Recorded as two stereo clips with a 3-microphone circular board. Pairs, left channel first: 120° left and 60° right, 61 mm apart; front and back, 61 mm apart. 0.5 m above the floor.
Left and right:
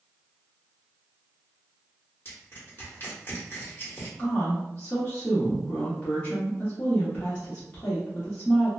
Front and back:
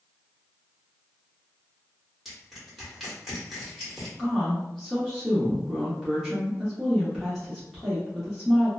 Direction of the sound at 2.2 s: 90° left.